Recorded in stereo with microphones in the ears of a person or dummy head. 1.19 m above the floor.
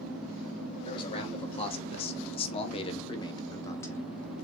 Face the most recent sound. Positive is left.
turn(degrees=5)  # may be behind; listen again after turning